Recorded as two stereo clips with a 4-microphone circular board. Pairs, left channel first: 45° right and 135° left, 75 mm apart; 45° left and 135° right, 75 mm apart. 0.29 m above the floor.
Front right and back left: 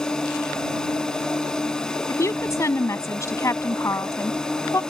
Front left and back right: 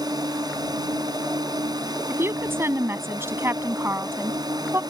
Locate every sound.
0.0 s a drone: 125° right
2.1 s a woman speaking: 85° right